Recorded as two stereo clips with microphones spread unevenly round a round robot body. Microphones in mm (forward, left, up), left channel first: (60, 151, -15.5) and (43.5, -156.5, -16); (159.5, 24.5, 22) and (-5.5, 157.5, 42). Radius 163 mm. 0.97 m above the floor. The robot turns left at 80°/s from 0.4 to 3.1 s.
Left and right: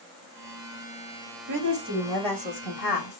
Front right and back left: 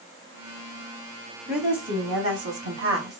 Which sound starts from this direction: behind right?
A woman speaking, at 1.5 s.